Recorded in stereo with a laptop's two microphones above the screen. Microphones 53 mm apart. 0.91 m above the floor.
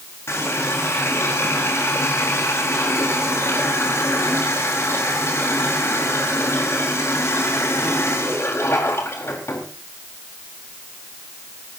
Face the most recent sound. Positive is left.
turn(degrees=55)  # may be behind; listen again after turning